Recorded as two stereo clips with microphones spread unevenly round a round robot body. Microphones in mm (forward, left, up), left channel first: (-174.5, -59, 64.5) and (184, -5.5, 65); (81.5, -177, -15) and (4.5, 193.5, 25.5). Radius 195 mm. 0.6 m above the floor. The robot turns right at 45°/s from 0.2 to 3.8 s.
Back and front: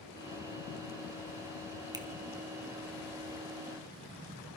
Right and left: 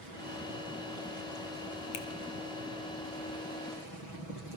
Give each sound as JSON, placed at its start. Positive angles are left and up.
{"t": 1.9, "sound": "a finger snap", "azimuth_deg": -70, "distance_m": 2.0}